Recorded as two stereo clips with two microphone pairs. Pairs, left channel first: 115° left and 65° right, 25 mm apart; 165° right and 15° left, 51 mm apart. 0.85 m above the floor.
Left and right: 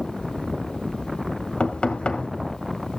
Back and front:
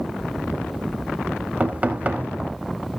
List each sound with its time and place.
1.6 s knocking: 75° left, 2 m